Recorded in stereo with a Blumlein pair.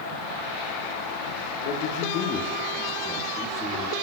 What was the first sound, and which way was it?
A man speaking, 50° left.